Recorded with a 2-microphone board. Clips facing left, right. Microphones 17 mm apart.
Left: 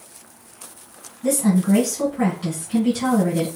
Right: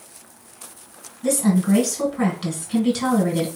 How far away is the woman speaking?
About 2 m.